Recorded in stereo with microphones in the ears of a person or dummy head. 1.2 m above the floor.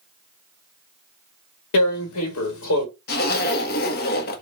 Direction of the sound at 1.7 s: 80° left.